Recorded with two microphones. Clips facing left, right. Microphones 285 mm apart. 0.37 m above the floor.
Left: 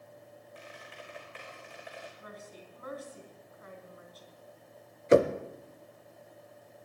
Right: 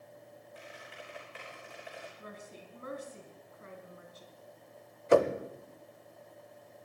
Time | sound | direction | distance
0.6 | a squeak | 5° right (ahead or behind) | 5 m
2.2 | a woman speaking | 30° right (ahead or behind) | 3 m
5.1 | knocking | 25° left (ahead or behind) | 0.8 m